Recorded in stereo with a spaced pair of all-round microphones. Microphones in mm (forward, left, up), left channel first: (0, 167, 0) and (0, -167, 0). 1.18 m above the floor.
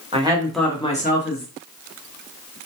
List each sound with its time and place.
0.1 s a woman speaking: 20° right (ahead or behind), 0.8 m; by 2.6 s 70° left (ahead or behind), 1.1 m